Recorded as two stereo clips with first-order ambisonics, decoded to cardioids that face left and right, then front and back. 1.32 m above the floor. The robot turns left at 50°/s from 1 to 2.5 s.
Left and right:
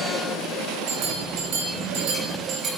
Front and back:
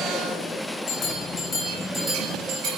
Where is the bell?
60° right, 3 m; by 2.7 s 135° right, 3 m.